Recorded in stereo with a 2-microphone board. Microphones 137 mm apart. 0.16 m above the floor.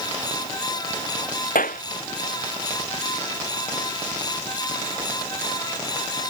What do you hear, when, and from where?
1.6 s a clap: 75° left (ahead or behind)